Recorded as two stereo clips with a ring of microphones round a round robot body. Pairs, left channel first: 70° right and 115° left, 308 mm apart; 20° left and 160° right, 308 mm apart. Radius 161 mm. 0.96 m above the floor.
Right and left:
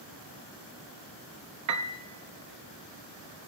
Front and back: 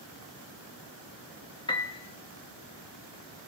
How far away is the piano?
About 0.8 m.